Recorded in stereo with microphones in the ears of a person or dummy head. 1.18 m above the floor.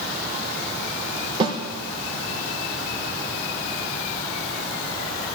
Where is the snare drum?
30° right (ahead or behind), 3 m.